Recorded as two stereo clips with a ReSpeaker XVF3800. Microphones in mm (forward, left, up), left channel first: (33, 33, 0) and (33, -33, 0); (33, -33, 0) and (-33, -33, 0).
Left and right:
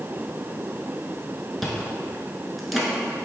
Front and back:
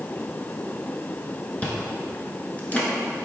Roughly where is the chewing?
Ahead.